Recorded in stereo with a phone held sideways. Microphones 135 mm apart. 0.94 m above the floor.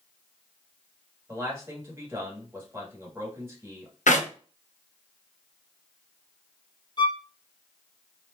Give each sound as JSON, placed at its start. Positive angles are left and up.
{"t": 1.3, "sound": "a man speaking", "side_deg": -20, "distance_m": 1.8}
{"t": 4.1, "sound": "a clap", "side_deg": 85, "distance_m": 0.8}
{"t": 7.0, "sound": "a violin", "side_deg": 40, "distance_m": 0.6}